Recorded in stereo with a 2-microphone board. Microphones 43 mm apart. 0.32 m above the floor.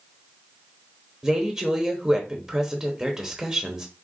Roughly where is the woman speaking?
Centre.